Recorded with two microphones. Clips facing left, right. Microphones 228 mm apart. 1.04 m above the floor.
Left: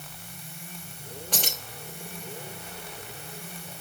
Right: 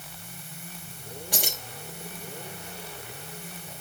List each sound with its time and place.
1.3 s keys jangling: 10° right (ahead or behind), 3 m